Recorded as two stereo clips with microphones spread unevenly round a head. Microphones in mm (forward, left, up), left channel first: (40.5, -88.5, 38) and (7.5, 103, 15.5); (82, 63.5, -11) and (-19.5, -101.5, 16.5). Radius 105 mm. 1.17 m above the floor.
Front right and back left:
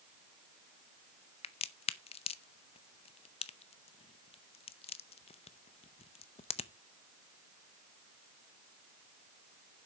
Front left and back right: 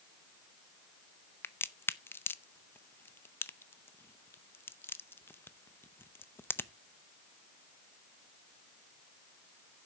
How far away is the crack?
About 0.6 m.